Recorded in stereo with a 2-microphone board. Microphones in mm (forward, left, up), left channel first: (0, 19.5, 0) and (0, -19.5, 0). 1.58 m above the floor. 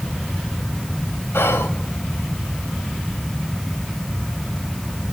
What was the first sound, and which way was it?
Whispering, 85° left.